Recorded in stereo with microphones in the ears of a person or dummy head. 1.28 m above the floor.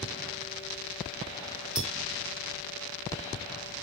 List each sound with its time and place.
1.8 s a clink: 5° right (ahead or behind), 2.0 m